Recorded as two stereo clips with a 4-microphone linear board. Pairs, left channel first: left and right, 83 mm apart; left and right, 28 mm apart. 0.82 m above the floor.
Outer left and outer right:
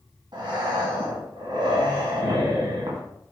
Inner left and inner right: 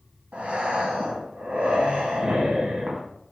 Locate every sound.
0.3 s breathing: 70° right (ahead or behind), 1.5 m